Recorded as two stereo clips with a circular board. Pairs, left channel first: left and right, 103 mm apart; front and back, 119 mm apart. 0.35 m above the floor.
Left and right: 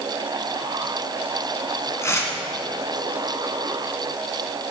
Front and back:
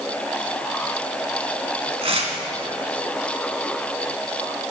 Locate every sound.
2.0 s tearing paper: 150° left, 1.5 m